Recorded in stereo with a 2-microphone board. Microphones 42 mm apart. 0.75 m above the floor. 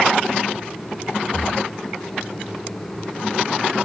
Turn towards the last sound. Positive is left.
turn(degrees=0)  # may be behind; listen again after turning